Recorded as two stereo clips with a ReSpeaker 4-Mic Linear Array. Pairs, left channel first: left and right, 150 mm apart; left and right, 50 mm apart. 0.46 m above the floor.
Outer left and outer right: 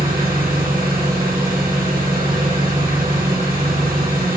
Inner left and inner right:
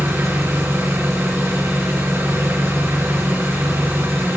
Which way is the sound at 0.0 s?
75° right (ahead or behind).